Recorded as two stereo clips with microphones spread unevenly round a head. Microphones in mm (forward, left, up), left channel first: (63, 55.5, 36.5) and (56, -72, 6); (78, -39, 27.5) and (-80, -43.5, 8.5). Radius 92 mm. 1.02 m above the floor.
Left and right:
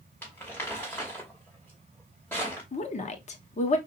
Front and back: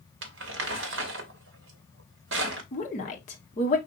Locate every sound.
0.2 s crumpling: 160° left, 0.9 m
2.7 s a woman speaking: 50° left, 1.1 m